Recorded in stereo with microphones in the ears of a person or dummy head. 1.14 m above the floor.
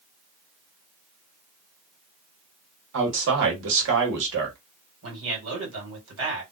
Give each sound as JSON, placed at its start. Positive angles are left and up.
{"t": 2.9, "sound": "a man speaking", "side_deg": -65, "distance_m": 1.4}
{"t": 5.0, "sound": "a man speaking", "side_deg": -70, "distance_m": 1.8}